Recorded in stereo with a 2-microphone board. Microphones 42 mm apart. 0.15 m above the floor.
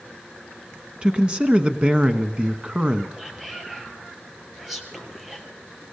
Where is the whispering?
5° right (ahead or behind), 4 m.